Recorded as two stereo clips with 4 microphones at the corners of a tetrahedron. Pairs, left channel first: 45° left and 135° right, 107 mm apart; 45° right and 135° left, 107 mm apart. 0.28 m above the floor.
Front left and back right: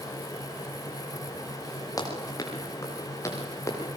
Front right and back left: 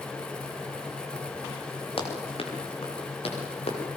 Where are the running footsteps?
10° right, 7.5 m; by 3.8 s 20° right, 8.5 m.